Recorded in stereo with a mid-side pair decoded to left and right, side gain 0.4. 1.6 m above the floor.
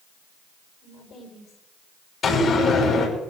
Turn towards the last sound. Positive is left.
turn(degrees=65)